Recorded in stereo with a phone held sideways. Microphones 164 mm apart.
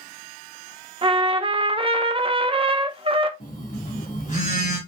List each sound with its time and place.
1.0 s a trumpet: 35° right (ahead or behind), 0.5 m
3.4 s a phone buzzing: 50° left (ahead or behind), 2.0 m